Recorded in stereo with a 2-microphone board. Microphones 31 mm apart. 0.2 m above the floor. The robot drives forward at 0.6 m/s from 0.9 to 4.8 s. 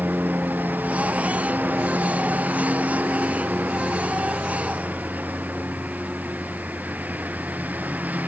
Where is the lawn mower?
70° right (ahead or behind); by 8.3 s 60° right (ahead or behind).